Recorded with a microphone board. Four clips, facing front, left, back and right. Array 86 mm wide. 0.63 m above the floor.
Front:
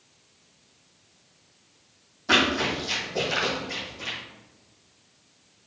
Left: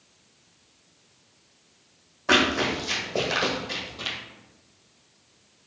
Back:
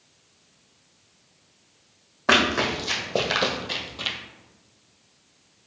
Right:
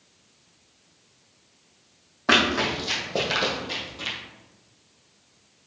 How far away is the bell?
No bell in this recording.